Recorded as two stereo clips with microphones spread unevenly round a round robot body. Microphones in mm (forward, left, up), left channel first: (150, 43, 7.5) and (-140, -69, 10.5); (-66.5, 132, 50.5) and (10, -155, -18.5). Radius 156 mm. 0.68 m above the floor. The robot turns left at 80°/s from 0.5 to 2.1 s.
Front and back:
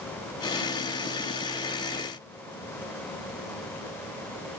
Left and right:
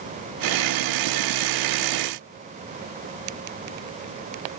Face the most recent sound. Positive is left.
No sound to turn to.